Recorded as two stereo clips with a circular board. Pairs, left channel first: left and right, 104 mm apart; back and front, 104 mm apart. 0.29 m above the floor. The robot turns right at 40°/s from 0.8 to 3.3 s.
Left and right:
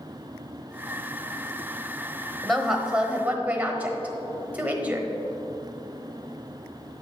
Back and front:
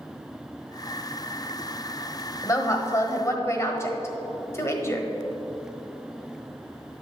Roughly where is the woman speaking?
Behind.